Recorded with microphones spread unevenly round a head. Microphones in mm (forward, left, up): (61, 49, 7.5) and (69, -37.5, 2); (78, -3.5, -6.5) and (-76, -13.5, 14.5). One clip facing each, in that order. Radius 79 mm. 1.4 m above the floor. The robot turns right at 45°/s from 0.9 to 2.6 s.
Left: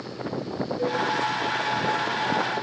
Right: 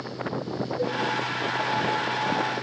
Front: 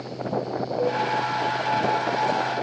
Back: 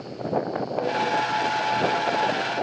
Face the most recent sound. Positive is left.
turn(degrees=60)